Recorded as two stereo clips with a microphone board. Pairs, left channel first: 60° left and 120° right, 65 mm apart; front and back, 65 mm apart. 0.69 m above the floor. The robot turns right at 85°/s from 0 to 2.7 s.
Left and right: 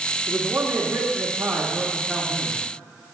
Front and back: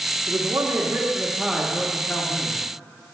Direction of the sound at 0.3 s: 160° left.